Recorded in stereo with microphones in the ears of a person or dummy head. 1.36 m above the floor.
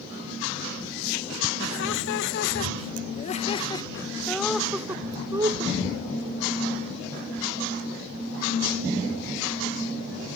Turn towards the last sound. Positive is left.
turn(degrees=-25)  # may be behind; listen again after turning